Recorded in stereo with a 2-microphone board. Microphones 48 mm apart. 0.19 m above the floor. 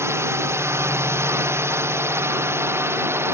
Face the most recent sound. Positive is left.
turn(degrees=-60)  # may be behind; listen again after turning